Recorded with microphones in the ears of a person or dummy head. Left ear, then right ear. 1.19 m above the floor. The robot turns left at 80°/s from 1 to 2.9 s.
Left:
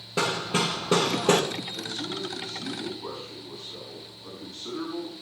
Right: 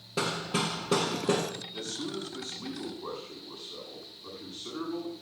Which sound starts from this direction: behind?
Hammering, at 0.2 s.